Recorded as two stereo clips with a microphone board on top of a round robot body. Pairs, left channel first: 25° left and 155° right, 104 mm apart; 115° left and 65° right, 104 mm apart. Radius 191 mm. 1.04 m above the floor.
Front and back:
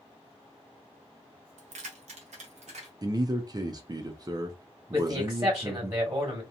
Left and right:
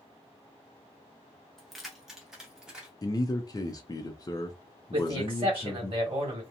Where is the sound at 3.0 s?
160° left, 0.6 m.